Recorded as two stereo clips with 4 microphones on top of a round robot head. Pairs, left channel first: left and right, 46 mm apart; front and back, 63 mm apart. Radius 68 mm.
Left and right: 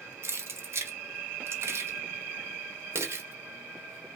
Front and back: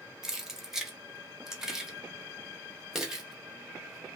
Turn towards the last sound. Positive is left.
turn(degrees=-95)